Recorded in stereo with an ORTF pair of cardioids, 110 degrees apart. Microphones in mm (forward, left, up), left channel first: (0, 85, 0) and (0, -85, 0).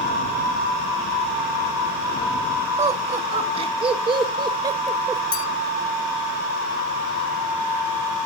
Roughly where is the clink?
Ahead left.